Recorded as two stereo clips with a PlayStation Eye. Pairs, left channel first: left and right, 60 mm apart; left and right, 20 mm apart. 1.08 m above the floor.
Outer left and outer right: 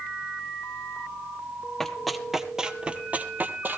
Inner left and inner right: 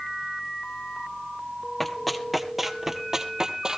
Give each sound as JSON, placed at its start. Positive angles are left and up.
{"t": 1.8, "sound": "running footsteps", "side_deg": 10, "distance_m": 1.2}